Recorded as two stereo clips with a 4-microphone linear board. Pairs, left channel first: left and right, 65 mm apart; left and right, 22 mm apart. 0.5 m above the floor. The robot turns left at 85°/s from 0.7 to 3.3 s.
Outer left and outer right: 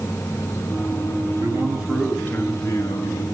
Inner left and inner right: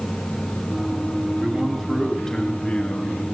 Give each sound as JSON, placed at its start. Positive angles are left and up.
{"t": 1.4, "sound": "a man speaking", "azimuth_deg": -130, "distance_m": 6.5}